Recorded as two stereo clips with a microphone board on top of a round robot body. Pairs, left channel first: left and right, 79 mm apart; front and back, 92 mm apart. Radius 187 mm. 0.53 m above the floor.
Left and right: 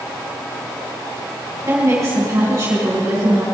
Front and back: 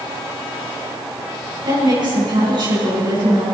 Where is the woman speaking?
145° right, 6.5 m.